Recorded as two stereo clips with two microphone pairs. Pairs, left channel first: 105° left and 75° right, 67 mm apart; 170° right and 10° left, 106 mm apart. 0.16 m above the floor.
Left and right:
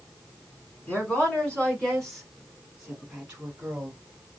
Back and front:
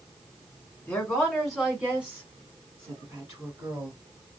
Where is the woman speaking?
120° left, 1.6 m; by 4.0 s 20° right, 1.9 m.